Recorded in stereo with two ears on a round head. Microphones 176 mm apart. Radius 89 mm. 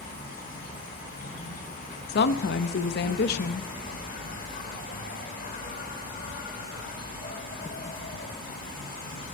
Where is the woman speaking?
55° left (ahead or behind), 0.6 m.